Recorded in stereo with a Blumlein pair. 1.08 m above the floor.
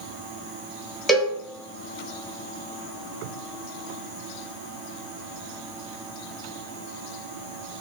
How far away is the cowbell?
About 1.3 m.